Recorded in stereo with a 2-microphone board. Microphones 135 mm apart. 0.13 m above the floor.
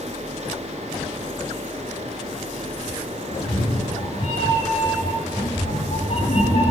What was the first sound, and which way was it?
A cat meowing, 65° left (ahead or behind).